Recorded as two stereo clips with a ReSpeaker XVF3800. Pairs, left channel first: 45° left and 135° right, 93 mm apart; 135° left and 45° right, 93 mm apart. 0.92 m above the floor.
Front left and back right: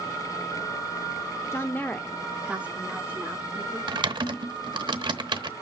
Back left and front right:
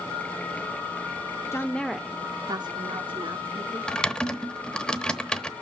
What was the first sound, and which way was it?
A woman speaking, 90° left.